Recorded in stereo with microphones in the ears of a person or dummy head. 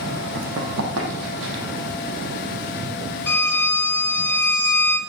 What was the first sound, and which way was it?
Running footsteps, 65° right (ahead or behind).